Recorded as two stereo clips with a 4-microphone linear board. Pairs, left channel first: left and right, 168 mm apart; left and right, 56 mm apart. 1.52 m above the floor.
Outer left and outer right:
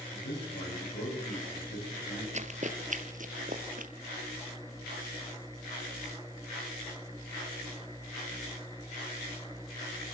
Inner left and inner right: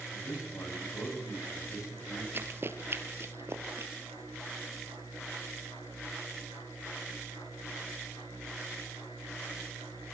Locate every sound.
0.1 s a man speaking: 90° left, 9 m
2.3 s running footsteps: 45° right (ahead or behind), 2 m; by 3.9 s 55° right (ahead or behind), 2.5 m